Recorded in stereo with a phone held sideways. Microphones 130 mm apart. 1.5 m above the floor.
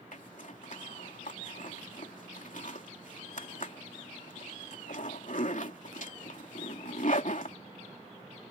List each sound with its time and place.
0.1 s a zipper: 70° left (ahead or behind)